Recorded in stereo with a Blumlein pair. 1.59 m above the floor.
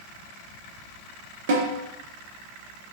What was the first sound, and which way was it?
A snare drum, 55° right.